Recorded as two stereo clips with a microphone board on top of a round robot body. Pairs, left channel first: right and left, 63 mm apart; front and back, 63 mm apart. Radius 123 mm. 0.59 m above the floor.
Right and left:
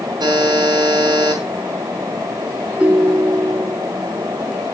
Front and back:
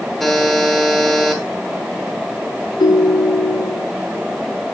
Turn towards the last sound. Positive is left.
turn(degrees=15)